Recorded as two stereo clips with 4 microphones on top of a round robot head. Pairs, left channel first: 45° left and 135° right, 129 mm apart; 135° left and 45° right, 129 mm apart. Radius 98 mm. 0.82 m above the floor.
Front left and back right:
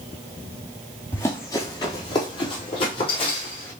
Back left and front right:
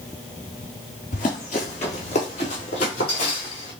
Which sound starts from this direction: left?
Running footsteps, at 1.1 s.